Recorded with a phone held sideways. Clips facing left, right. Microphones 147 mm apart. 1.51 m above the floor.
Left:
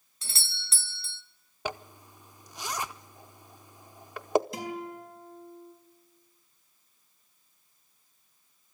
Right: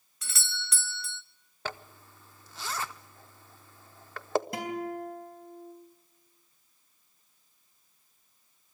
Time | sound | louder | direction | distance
0.2 | a doorbell | right 5 dB | 30° left (ahead or behind) | 0.8 m
1.6 | a zipper | left 3 dB | 15° left (ahead or behind) | 0.5 m
4.5 | a guitar | right 3 dB | 60° right (ahead or behind) | 4 m